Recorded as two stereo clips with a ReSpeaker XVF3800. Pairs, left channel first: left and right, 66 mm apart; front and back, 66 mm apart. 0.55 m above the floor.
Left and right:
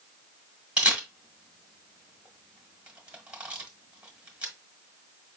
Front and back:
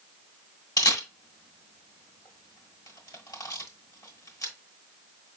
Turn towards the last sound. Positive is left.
turn(degrees=-20)